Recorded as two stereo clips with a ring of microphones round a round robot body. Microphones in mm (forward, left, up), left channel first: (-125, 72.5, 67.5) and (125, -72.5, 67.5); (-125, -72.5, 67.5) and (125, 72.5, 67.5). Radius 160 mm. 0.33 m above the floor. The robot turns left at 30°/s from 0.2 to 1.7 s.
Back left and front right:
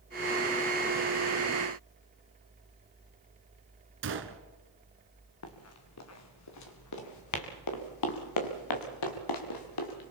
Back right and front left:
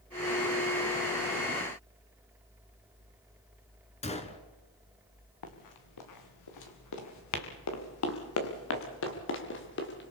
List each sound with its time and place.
4.0 s a gunshot: 80° right, 1.9 m
5.4 s running footsteps: 165° right, 4 m; by 10.1 s 155° left, 4.5 m